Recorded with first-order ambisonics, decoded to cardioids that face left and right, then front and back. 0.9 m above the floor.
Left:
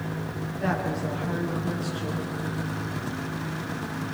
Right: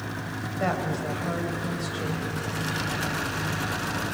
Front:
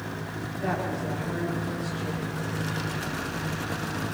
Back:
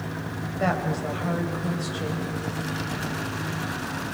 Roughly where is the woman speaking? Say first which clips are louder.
Right 1 dB, back 4 dB; behind right.